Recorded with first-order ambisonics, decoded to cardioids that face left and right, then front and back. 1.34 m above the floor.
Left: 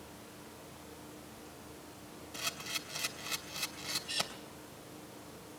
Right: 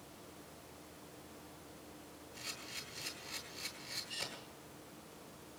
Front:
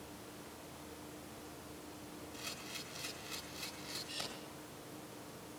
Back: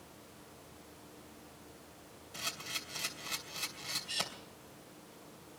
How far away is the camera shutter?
About 3 m.